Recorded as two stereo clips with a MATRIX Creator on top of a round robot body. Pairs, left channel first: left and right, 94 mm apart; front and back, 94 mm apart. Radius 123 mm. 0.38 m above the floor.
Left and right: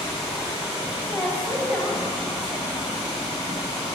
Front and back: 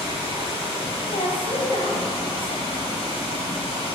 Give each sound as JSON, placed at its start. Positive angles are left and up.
{"t": 0.0, "sound": "running water", "azimuth_deg": -5, "distance_m": 4.0}
{"t": 1.1, "sound": "a woman speaking", "azimuth_deg": 15, "distance_m": 2.5}